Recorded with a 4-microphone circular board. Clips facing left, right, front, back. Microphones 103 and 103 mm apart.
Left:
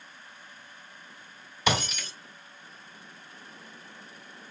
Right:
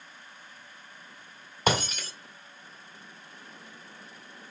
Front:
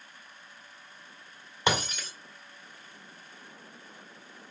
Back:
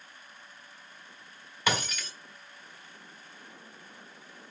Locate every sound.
1.7 s breaking glass: 60° right, 1.6 m